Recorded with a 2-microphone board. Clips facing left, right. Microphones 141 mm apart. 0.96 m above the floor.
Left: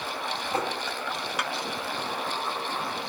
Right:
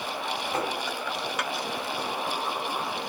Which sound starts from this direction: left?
Tapping, at 0.5 s.